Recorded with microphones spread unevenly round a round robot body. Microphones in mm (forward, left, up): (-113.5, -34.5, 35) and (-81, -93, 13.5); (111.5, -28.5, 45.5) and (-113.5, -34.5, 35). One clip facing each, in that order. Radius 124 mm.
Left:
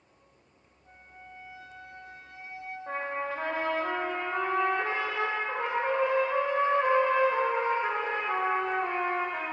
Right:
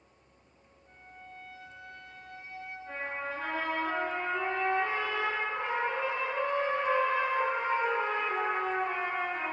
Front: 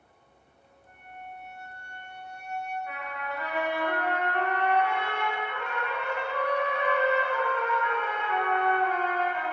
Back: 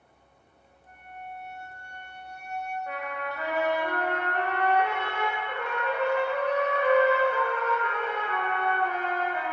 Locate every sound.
0.8 s a flute: 155° right, 1.2 m
2.9 s a trumpet: 125° left, 1.4 m